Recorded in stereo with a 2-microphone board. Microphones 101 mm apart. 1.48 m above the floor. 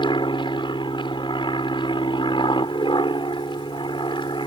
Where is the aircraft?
55° left (ahead or behind).